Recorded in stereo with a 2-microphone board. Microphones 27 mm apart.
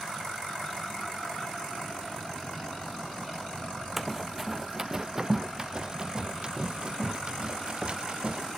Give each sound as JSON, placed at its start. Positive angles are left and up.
{"t": 4.0, "sound": "running footsteps", "side_deg": -5}